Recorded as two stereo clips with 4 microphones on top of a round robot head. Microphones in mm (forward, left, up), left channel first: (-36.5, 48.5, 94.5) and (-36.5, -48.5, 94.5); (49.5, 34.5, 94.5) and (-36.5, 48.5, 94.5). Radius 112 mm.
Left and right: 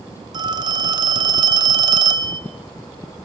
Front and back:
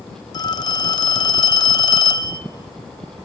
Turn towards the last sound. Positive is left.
turn(degrees=-45)